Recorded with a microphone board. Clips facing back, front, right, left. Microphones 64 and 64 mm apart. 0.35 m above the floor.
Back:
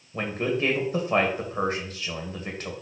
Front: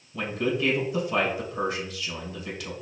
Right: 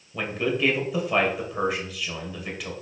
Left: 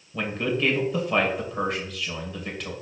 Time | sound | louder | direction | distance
0.1 | a man speaking | even, even | 175° right | 1.9 m